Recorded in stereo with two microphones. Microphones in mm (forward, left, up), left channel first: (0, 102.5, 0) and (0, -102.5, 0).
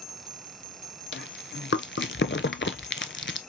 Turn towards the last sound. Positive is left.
turn(degrees=65)  # may be behind; listen again after turning